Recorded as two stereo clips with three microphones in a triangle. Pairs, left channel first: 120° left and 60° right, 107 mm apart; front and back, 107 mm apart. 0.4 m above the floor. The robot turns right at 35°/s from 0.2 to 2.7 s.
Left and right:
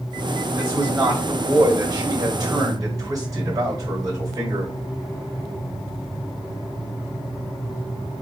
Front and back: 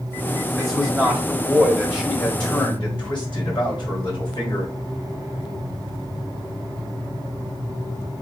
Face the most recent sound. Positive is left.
turn(degrees=-20)